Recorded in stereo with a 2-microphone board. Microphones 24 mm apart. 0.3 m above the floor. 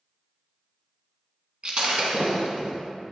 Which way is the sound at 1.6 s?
55° right (ahead or behind).